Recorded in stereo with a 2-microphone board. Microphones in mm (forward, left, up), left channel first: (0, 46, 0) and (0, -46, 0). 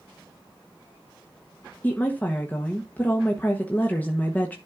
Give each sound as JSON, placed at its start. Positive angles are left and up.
{"t": 1.8, "sound": "a woman speaking", "side_deg": 20, "distance_m": 1.2}